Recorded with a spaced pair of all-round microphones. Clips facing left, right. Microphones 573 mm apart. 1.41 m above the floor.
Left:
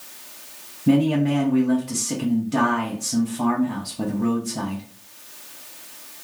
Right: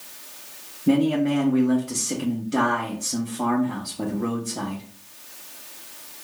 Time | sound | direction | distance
0.9 | a man speaking | 20° left (ahead or behind) | 0.5 m